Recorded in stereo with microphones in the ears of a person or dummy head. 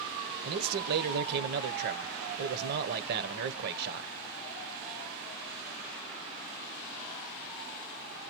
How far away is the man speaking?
About 0.9 m.